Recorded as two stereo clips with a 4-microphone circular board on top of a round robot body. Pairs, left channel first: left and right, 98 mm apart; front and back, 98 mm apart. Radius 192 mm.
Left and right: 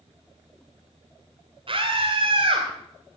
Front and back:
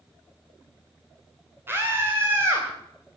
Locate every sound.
1.7 s a scream: 110° right, 2.5 m